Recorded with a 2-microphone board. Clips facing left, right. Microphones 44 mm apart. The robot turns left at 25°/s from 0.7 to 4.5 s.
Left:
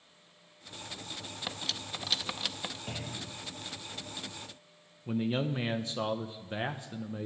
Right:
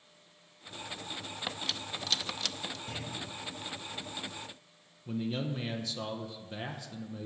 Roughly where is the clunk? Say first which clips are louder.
Even; left.